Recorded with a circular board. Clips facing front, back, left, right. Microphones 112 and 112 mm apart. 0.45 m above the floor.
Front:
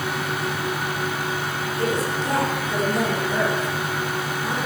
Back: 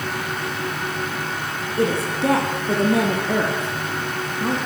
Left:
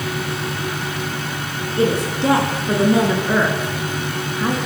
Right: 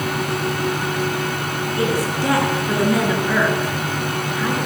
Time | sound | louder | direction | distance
1.8 | a woman speaking | back 4 dB, left 3 dB | 155° left | 6 m